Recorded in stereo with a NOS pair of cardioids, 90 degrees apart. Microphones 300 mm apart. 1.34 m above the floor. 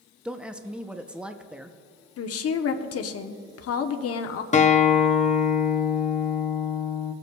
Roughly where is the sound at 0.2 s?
Ahead.